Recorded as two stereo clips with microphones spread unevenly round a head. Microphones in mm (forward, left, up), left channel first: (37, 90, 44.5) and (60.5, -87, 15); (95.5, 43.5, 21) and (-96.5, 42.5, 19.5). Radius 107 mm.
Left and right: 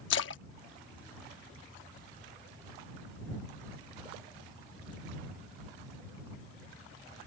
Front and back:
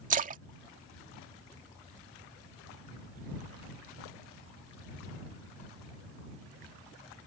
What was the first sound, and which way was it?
A splash, 135° left.